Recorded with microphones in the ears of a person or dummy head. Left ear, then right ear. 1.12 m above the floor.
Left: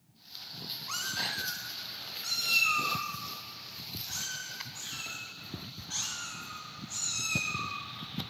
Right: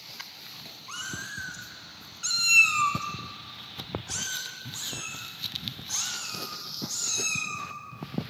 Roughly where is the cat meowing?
Centre.